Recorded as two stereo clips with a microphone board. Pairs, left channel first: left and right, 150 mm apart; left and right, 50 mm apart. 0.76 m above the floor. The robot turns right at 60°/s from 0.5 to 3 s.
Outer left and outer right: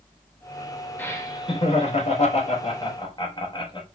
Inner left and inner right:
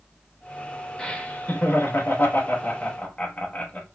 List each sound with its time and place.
1.0 s laughter: 15° left, 0.9 m; by 3.9 s 140° left, 0.9 m